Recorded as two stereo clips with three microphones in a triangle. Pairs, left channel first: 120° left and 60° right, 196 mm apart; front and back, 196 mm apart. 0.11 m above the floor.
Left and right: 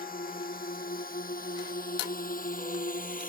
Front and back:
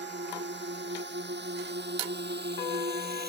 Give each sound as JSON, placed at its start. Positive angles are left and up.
{"t": 0.0, "sound": "a drone", "azimuth_deg": 160}